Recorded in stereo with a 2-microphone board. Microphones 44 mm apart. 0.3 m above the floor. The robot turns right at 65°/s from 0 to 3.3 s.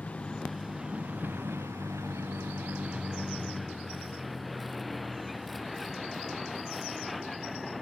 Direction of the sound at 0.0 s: 145° left.